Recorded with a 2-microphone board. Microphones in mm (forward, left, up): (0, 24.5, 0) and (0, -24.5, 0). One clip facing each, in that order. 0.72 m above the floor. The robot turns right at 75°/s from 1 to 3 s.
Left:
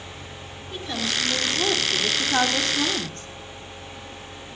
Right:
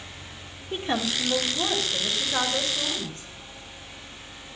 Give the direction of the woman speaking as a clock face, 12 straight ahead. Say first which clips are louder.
Right 1 dB; 1 o'clock.